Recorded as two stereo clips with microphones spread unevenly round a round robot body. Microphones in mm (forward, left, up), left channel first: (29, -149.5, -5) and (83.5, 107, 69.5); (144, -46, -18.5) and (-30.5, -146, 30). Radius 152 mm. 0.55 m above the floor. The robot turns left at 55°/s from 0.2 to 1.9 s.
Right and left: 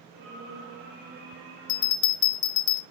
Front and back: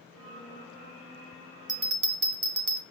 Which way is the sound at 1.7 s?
100° right.